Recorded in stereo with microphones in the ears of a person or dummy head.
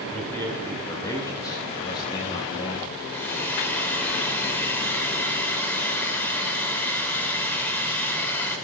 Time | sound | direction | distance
0.1 | a man speaking | 10° left (ahead or behind) | 5 m
3.0 | a hair dryer | 10° left (ahead or behind) | 6.5 m